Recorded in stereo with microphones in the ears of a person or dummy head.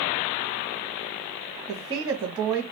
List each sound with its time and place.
1.7 s a woman speaking: 20° right (ahead or behind), 0.8 m